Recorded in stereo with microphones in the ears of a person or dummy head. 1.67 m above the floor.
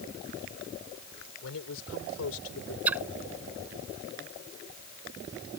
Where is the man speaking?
80° left.